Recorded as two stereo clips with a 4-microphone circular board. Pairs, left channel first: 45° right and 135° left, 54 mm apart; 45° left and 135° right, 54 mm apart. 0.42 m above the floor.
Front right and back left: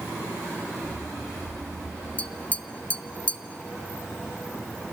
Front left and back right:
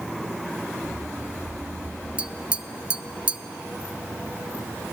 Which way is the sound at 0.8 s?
85° right.